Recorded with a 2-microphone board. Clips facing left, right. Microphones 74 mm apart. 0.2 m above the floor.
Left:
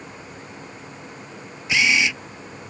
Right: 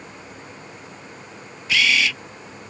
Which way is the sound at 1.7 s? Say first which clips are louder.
Even; 20° left (ahead or behind).